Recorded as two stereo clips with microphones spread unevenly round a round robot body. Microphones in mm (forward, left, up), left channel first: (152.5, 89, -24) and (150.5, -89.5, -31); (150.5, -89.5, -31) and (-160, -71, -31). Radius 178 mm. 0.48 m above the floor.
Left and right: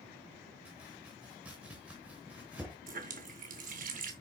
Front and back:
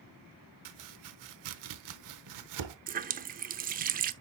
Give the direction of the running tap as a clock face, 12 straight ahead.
4 o'clock.